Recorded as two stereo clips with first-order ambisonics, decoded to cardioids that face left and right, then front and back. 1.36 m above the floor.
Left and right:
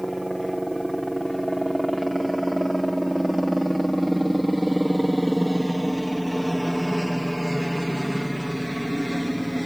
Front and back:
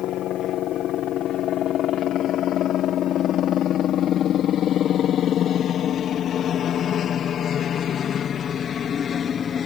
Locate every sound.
0.0 s a helicopter: 10° right